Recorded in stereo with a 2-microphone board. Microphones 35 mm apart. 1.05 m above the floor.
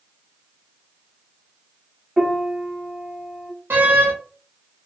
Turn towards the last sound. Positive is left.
turn(degrees=-80)